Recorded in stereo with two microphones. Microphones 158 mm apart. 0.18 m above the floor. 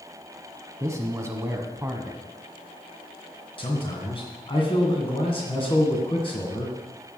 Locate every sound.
0.8 s a man speaking: 20° right (ahead or behind), 1.0 m
3.6 s a man speaking: 35° left (ahead or behind), 1.8 m